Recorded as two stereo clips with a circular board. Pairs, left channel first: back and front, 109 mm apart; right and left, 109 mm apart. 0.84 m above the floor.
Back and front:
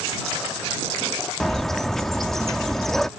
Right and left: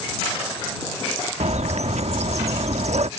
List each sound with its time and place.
1.4 s a bird: 95° left